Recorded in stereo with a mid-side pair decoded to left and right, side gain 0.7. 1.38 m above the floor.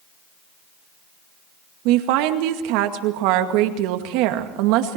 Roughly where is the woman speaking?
Right.